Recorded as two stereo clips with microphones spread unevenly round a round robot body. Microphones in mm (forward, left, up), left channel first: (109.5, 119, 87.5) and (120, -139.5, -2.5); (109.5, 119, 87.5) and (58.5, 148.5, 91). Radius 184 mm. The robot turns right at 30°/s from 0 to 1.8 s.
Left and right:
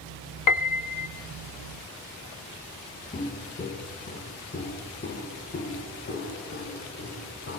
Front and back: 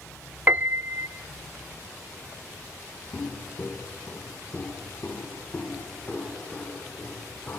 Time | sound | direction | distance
0.5 | a piano | 90° left | 0.7 m
3.1 | footsteps | 30° left | 3.5 m